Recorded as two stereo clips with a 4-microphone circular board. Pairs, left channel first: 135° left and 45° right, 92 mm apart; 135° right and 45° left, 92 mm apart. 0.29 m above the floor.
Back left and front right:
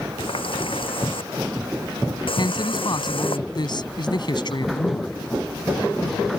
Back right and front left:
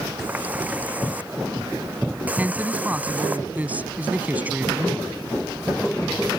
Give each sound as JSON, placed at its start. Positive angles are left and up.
{"t": 0.2, "sound": "a running tap", "azimuth_deg": 120}
{"t": 2.4, "sound": "a man speaking", "azimuth_deg": 115}